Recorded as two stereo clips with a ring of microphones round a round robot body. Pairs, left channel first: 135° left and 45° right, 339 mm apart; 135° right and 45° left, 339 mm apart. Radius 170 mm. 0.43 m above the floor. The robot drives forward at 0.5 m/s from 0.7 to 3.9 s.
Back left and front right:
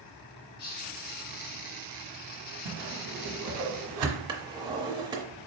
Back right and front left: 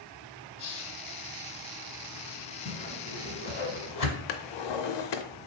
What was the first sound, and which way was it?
A hiss, 170° right.